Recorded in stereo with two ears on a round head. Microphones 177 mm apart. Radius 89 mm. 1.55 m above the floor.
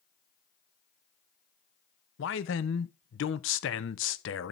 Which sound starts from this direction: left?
A man speaking, at 2.2 s.